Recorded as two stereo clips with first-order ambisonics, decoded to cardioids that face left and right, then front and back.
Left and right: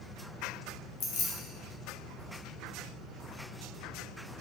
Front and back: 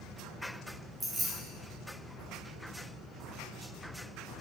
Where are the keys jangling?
105° left, 0.8 m.